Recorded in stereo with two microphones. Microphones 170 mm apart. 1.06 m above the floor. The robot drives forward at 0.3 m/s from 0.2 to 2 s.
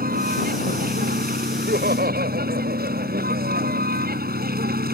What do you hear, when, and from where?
0.0 s a vehicle: 55° right (ahead or behind); by 5.0 s 60° right (ahead or behind)
1.5 s laughter: 65° right (ahead or behind)